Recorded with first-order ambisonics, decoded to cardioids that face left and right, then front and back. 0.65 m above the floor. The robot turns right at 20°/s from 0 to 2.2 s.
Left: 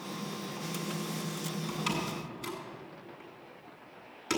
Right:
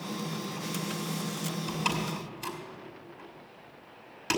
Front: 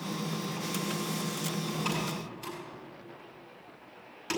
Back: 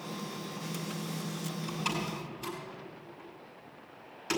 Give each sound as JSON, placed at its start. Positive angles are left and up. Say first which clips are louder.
{"t": 1.7, "sound": "a door slam", "louder": "right 3 dB, back 1 dB", "azimuth_deg": -90, "distance_m": 5.5}